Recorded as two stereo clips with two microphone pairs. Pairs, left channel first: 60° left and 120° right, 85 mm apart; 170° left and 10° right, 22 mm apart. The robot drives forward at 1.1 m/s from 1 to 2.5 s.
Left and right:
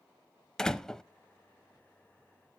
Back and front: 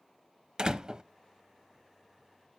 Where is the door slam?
25° right, 0.8 m.